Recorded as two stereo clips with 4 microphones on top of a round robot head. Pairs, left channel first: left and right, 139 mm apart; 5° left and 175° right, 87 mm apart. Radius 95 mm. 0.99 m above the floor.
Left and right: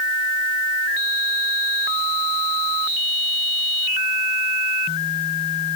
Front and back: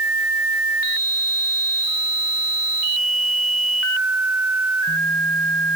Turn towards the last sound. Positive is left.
No sound to turn to.